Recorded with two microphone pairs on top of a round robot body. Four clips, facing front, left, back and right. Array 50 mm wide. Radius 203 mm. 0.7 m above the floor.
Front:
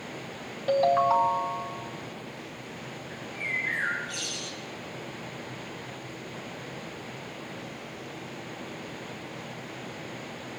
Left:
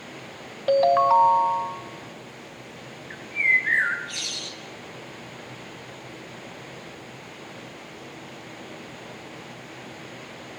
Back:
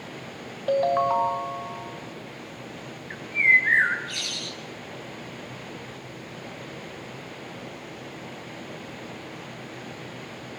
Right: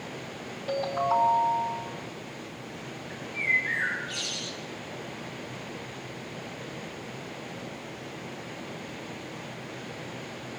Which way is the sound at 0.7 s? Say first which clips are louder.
Left 9 dB, even; 100° left.